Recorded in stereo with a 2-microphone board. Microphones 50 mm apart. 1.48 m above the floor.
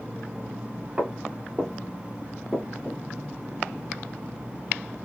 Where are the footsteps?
25° right (ahead or behind), 1.7 m; by 3.0 s 5° left (ahead or behind), 1.4 m.